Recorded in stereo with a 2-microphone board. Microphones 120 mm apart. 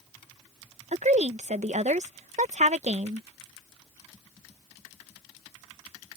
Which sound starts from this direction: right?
A woman speaking, at 0.9 s.